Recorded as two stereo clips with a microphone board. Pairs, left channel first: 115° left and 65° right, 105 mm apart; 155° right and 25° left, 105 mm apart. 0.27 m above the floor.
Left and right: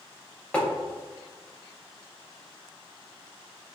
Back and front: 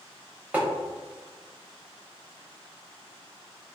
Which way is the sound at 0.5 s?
60° left.